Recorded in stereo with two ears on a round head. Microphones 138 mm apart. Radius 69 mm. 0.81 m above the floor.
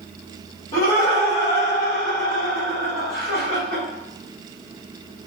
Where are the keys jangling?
No keys jangling in this recording.